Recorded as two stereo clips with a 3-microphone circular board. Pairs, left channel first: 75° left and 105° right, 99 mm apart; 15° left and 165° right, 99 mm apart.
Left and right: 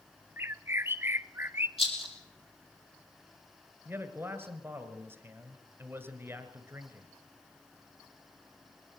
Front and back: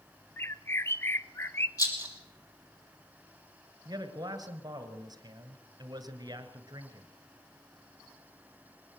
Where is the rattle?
65° left, 4 m.